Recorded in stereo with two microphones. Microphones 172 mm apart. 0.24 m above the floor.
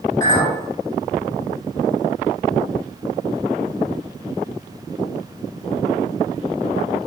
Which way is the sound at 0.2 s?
20° left (ahead or behind).